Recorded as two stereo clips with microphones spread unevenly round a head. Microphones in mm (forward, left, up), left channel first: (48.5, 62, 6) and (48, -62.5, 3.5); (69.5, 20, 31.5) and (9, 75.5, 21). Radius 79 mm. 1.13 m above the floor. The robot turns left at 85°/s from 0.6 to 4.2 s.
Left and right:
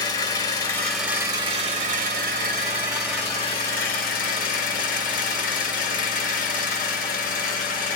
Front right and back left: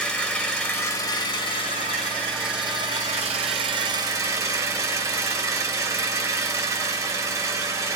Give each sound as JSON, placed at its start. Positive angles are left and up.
{"t": 0.0, "sound": "an engine running", "azimuth_deg": 30, "distance_m": 1.4}